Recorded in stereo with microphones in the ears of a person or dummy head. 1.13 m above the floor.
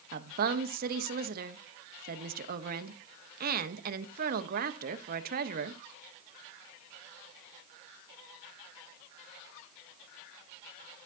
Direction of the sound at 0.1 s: 55° right (ahead or behind).